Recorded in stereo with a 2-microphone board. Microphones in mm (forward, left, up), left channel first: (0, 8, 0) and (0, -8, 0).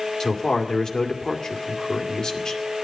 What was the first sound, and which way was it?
A man speaking, 40° left (ahead or behind).